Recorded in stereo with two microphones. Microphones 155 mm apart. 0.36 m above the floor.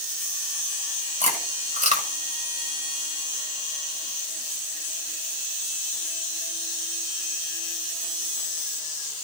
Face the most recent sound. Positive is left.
turn(degrees=-50)  # may be behind; listen again after turning